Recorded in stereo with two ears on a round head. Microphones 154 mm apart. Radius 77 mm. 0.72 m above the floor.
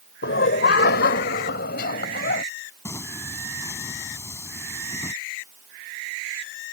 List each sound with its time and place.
0.2 s laughter: 70° left (ahead or behind); by 2.4 s 60° left (ahead or behind)
2.9 s singing: 15° left (ahead or behind)